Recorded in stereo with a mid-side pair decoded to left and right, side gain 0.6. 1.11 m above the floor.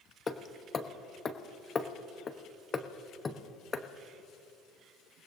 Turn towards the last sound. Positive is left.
turn(degrees=25)